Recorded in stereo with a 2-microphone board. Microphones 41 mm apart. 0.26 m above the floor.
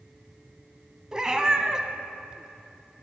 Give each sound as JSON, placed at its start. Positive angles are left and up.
{"t": 1.1, "sound": "a cat meowing", "side_deg": -15, "distance_m": 0.9}